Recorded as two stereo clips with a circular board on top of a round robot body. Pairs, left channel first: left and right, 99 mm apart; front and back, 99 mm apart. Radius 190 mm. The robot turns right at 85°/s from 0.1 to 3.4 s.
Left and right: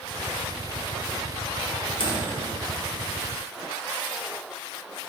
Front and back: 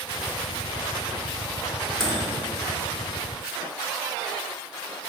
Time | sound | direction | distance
2.0 | a microwave | 80° left | 0.9 m